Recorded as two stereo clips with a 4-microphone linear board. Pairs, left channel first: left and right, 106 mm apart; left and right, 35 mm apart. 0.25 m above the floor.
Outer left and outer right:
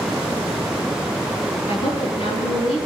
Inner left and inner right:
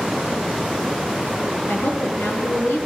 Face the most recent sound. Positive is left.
turn(degrees=65)  # may be behind; listen again after turning